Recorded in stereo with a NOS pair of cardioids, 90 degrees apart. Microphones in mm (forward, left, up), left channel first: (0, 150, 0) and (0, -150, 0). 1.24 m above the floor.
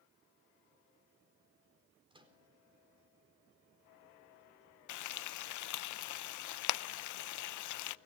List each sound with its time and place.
2.1 s a microwave: 15° right, 4 m
4.9 s frying: 65° left, 0.7 m